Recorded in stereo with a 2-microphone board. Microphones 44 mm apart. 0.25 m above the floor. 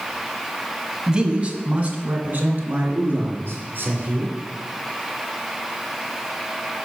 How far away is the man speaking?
About 1.3 m.